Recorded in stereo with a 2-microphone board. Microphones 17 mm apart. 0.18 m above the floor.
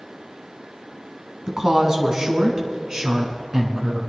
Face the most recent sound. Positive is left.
turn(degrees=-45)  # may be behind; listen again after turning